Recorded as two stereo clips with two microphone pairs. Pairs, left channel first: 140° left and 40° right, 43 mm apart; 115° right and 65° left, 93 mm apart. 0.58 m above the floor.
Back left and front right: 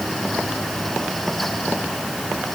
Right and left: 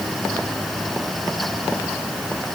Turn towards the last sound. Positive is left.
No sound to turn to.